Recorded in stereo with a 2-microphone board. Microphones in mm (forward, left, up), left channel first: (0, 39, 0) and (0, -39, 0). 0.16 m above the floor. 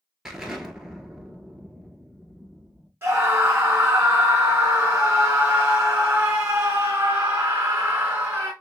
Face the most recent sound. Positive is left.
turn(degrees=-30)  # may be behind; listen again after turning